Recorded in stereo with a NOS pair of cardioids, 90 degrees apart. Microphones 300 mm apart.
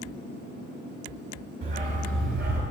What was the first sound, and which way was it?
A dog barking, 40° right.